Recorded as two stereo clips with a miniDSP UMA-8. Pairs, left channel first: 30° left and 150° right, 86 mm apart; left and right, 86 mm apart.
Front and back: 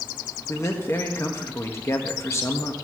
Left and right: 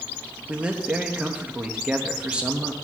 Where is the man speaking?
15° right, 1.3 m.